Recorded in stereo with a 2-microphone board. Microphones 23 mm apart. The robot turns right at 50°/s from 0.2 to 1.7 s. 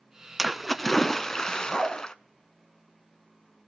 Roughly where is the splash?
Ahead.